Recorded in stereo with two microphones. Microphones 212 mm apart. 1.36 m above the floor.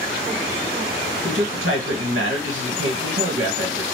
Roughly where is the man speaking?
Right.